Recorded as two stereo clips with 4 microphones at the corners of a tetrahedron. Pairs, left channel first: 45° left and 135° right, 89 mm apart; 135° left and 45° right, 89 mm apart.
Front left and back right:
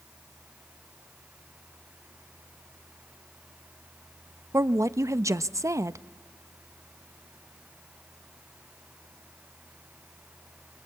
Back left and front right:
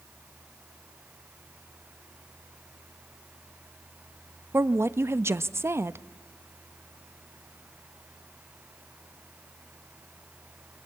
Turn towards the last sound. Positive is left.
turn(degrees=-95)